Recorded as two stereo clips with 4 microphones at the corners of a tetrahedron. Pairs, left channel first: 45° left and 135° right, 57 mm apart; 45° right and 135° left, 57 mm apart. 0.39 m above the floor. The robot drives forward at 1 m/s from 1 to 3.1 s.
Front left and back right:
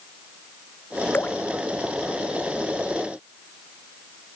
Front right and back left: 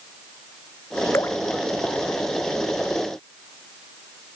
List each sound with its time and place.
1.1 s dripping: 10° right